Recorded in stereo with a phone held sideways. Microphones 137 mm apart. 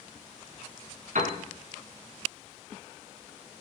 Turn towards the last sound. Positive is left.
turn(degrees=-65)  # may be behind; listen again after turning